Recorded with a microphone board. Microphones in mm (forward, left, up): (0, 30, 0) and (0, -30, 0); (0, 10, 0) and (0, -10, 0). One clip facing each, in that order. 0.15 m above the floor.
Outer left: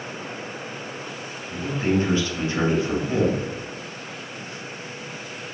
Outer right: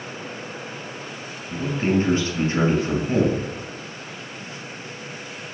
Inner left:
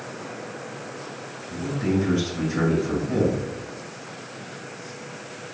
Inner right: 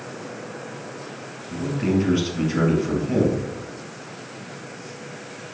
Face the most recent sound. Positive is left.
turn(degrees=-35)  # may be behind; listen again after turning